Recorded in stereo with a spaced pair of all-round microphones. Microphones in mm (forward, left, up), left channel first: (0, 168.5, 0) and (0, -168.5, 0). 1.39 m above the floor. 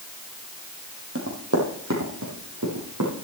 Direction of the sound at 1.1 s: 40° right (ahead or behind).